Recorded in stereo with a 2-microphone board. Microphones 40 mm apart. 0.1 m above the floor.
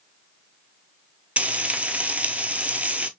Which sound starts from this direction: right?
Frying, at 1.4 s.